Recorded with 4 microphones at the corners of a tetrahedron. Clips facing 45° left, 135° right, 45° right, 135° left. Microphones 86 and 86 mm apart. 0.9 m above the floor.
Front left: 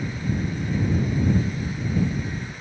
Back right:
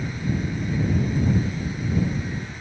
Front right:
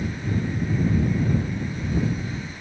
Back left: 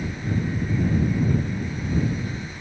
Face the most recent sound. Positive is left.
No sound to turn to.